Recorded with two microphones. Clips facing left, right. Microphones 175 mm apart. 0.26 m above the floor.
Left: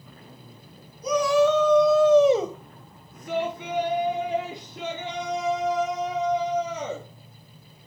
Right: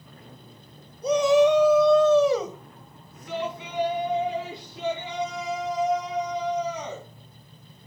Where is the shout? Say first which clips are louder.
Right 2 dB; 30° right (ahead or behind), 2 m; by 7.1 s 50° left (ahead or behind), 7.5 m.